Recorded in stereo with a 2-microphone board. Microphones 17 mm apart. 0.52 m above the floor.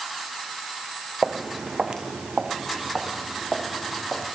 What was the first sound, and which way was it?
Footsteps, 55° right (ahead or behind).